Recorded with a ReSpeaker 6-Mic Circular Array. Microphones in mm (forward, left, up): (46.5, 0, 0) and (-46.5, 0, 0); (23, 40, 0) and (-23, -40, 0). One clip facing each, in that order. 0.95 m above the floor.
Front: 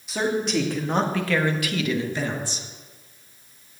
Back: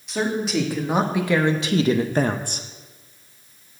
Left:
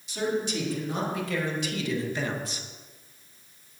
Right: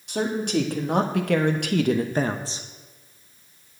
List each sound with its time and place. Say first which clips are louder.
0.1 s a man speaking: even, right 4 dB; 90° right, 1.9 m; by 2.7 s 175° left, 0.9 m